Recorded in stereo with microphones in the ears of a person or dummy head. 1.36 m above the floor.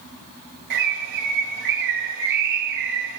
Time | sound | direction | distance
0.7 | a bird | 60° right (ahead or behind) | 3 m